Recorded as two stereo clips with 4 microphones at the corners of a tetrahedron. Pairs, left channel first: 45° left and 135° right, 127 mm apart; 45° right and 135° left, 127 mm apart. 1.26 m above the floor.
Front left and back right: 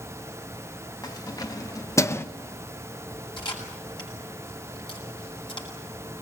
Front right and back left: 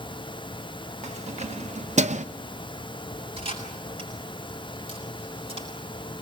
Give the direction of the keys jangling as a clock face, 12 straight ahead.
9 o'clock.